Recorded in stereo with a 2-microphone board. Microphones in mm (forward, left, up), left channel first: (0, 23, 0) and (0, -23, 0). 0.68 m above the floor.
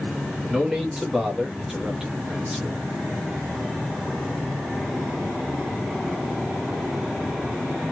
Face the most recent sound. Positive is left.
turn(degrees=-10)  # may be behind; listen again after turning